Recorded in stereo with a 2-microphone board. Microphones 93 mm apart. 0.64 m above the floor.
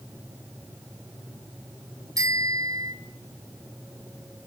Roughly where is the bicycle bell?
Right.